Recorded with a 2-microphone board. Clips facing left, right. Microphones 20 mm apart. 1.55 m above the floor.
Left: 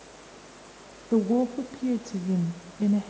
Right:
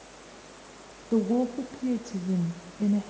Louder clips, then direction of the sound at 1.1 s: Left 2 dB; 20° left (ahead or behind).